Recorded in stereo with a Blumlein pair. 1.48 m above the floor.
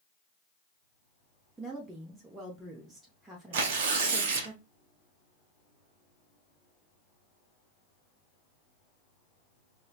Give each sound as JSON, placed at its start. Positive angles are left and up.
{"t": 1.6, "sound": "a woman speaking", "azimuth_deg": -10, "distance_m": 0.8}
{"t": 3.5, "sound": "tearing paper", "azimuth_deg": -50, "distance_m": 0.7}